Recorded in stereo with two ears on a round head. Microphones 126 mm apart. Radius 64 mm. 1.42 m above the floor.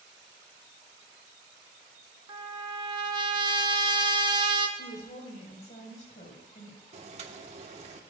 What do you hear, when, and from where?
2.3 s a trumpet: 30° right (ahead or behind), 1.2 m
4.8 s a woman speaking: 55° left (ahead or behind), 5.5 m
6.9 s boiling: 50° right (ahead or behind), 1.3 m